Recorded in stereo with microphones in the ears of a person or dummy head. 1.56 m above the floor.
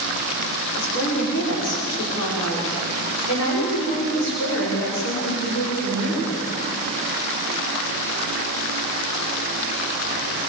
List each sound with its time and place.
0.8 s a woman speaking: 65° left (ahead or behind), 5.5 m; by 6.4 s 80° left, 8 m